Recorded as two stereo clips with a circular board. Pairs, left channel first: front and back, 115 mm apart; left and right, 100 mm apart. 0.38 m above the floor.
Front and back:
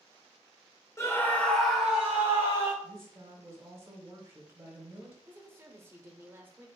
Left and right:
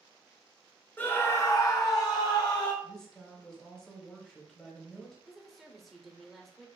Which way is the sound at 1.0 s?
35° left.